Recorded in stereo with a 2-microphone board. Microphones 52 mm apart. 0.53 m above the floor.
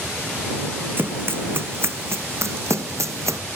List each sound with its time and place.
1.0 s running footsteps: 45° right (ahead or behind); by 3.4 s 70° right (ahead or behind)